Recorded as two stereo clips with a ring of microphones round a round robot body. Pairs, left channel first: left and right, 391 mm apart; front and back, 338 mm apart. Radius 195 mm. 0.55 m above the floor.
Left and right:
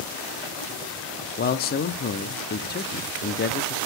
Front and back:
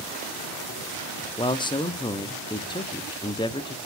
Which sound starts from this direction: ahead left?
A man speaking, at 1.4 s.